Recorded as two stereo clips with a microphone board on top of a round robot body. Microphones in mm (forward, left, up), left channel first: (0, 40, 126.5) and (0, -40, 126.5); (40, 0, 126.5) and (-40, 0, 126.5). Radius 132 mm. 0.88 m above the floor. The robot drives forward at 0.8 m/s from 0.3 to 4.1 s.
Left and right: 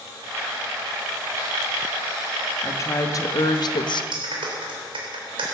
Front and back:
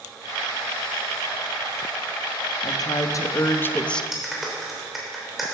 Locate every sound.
2.6 s a woman speaking: 35° left, 1.6 m; by 4.0 s 80° left, 1.0 m
4.1 s a clap: 95° right, 3 m